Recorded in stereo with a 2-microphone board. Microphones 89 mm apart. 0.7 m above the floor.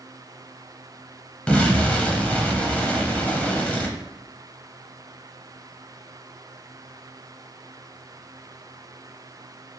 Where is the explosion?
15° left (ahead or behind), 0.5 m.